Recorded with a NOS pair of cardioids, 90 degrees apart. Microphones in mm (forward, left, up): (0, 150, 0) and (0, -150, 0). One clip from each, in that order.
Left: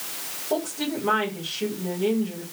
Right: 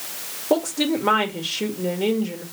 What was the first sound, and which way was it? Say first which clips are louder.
A woman speaking: right 6 dB; 65° right.